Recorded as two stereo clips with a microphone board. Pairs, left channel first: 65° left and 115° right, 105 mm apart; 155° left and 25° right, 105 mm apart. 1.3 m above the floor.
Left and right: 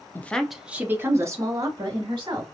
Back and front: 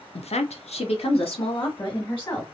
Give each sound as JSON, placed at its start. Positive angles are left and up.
{"t": 0.1, "sound": "a woman speaking", "azimuth_deg": 140, "distance_m": 0.5}